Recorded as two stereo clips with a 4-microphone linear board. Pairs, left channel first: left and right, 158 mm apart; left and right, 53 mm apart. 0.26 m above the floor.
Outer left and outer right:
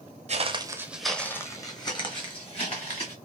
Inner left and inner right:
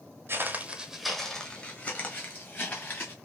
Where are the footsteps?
45° right (ahead or behind), 0.5 m; by 3.1 s 40° left (ahead or behind), 1.7 m.